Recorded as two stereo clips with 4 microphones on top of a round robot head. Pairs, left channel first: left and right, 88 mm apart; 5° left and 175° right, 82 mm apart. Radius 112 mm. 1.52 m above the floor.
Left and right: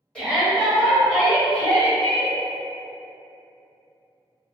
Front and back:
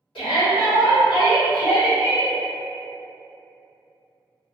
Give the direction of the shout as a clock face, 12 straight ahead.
12 o'clock.